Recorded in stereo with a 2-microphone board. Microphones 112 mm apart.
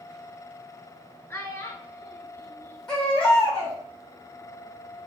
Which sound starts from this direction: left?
A child speaking, at 1.3 s.